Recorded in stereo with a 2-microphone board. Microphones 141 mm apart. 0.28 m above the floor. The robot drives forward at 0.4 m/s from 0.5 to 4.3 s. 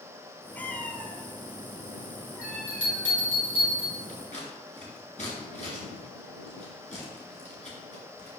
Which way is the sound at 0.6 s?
15° left (ahead or behind).